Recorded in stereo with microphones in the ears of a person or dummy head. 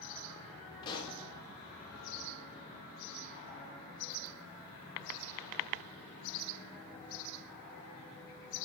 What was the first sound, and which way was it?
A pop, 25° left (ahead or behind).